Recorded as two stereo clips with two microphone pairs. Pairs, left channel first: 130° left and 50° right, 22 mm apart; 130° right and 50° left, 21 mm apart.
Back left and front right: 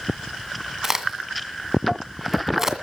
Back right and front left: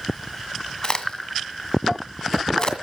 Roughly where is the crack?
Behind right.